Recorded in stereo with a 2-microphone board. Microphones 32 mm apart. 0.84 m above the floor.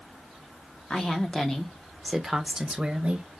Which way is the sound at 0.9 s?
30° left (ahead or behind).